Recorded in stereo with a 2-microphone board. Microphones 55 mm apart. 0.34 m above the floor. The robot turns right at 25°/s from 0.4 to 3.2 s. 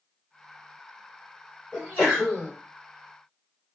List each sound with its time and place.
1.7 s a sneeze: 25° left (ahead or behind), 2.0 m; by 2.5 s 35° left (ahead or behind), 2.0 m